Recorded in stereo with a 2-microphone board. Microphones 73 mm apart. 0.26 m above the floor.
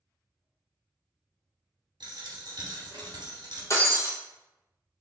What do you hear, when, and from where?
2.0 s a dropped coin: 75° right (ahead or behind), 1.6 m
3.7 s breaking glass: 45° left (ahead or behind), 1.3 m